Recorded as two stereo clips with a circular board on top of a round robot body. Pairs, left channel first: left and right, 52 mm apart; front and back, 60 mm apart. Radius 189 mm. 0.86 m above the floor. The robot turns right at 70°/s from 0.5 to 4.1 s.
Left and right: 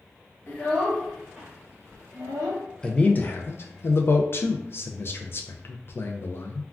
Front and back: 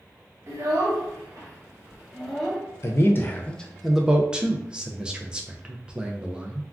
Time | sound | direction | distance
0.5 | a child speaking | 140° left | 1.2 m
2.8 | a man speaking | 20° left | 0.5 m